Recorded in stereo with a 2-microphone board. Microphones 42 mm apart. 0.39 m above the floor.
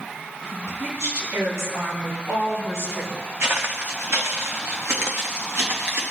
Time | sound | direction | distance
0.5 | a woman speaking | 75° right (ahead or behind) | 5.5 m
3.4 | footsteps | 65° right (ahead or behind) | 2.5 m